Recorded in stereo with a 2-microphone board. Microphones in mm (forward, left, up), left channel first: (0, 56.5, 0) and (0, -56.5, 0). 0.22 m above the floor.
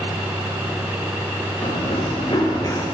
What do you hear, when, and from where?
1.6 s running footsteps: 60° left (ahead or behind), 3.5 m; by 2.9 s 25° left (ahead or behind), 2.5 m